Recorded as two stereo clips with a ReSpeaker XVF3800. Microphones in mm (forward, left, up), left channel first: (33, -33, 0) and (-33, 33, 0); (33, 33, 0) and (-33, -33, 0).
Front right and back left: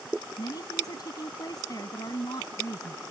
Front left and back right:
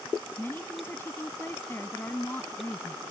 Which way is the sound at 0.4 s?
15° right.